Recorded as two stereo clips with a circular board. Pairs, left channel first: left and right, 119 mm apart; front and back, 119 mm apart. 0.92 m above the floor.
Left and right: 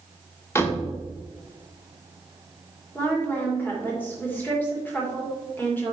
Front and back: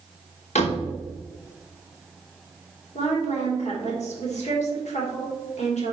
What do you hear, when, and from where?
0.6 s a door slam: 20° left, 1.6 m
3.0 s a woman speaking: 15° left, 3 m